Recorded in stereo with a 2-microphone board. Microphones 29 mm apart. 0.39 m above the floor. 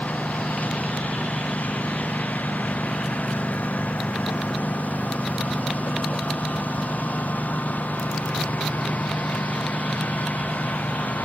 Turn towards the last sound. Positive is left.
turn(degrees=75)  # may be behind; listen again after turning